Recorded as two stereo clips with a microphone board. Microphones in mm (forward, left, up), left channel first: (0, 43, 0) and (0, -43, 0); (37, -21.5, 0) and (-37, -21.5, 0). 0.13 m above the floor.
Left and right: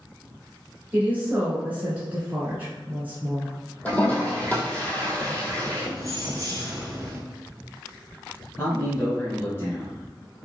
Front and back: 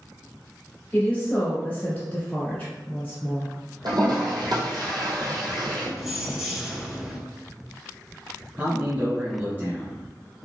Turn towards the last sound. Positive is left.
turn(degrees=135)